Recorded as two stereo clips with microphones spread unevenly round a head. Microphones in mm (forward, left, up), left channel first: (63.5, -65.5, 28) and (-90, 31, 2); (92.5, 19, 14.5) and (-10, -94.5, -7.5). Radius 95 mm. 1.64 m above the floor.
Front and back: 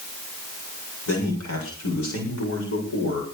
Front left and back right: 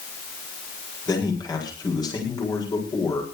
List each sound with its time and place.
1.1 s a man speaking: 15° right, 7.5 m